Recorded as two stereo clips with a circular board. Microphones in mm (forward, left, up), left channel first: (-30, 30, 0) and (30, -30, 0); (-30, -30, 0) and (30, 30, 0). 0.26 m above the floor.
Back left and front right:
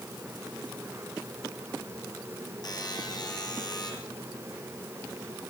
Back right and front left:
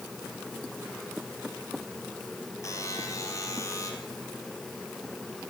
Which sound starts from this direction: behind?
A buzzer, at 2.6 s.